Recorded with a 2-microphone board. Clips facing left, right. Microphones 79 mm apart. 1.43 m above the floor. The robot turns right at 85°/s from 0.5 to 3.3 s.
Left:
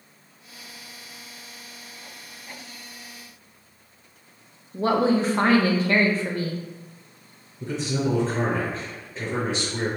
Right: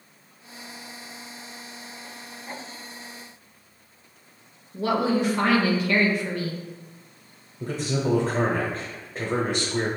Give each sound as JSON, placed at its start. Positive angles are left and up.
{"t": 4.7, "sound": "a woman speaking", "side_deg": 35, "distance_m": 0.6}
{"t": 7.6, "sound": "a man speaking", "side_deg": -50, "distance_m": 0.9}